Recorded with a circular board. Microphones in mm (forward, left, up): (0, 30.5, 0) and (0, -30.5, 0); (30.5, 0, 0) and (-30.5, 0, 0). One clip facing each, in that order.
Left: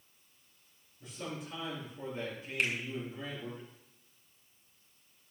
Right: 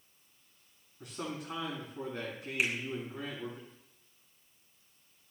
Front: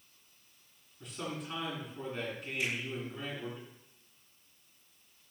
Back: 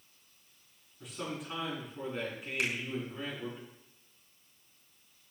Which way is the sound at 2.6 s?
170° right.